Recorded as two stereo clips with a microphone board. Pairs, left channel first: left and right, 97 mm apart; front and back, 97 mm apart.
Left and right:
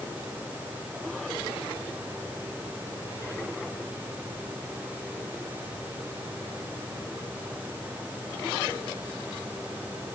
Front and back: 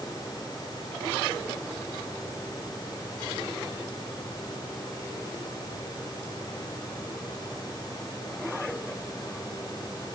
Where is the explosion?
No explosion in this recording.